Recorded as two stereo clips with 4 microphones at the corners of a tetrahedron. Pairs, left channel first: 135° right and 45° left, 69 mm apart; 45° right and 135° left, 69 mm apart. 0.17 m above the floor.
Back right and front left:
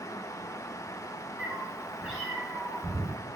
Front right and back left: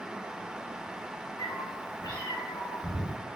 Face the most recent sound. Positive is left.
turn(degrees=-40)